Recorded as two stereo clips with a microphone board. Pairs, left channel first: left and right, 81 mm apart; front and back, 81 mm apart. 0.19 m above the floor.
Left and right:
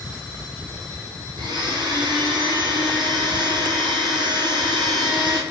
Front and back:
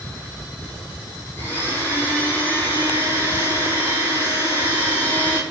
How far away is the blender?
About 1.3 m.